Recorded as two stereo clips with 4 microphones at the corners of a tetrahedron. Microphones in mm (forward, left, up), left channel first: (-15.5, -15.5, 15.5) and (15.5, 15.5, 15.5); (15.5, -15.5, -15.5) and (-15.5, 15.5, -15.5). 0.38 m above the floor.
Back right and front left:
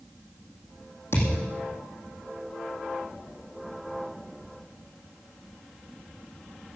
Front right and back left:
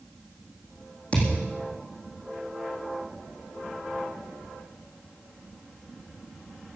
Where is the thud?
110° right, 7 m.